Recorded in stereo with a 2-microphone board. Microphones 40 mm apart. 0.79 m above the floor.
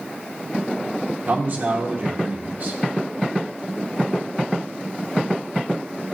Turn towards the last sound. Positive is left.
turn(degrees=-40)  # may be behind; listen again after turning